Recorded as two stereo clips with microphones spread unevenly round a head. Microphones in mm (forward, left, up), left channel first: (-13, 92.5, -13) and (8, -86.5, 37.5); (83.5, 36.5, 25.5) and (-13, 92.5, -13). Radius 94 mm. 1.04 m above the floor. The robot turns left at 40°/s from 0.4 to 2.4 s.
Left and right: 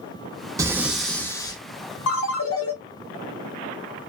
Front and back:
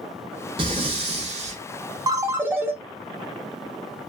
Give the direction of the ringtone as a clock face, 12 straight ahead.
9 o'clock.